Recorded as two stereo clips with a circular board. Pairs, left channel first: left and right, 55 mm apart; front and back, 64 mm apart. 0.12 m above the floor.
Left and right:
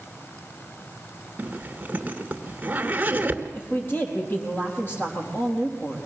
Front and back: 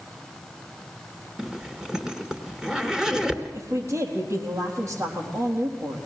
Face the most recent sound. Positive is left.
turn(degrees=140)